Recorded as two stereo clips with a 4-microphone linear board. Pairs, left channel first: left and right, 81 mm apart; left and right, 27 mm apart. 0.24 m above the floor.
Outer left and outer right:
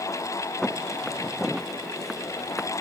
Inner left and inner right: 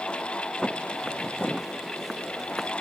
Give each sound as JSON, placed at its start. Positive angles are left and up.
{"t": 0.6, "sound": "footsteps", "side_deg": 5}